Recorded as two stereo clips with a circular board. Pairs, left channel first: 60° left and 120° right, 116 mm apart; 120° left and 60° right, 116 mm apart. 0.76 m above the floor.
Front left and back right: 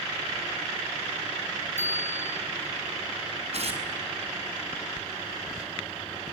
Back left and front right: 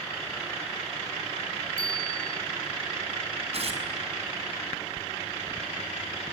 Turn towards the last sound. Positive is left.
turn(degrees=-90)